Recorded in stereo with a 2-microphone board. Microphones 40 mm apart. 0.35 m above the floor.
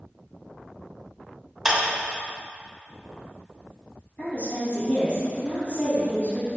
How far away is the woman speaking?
About 2.0 m.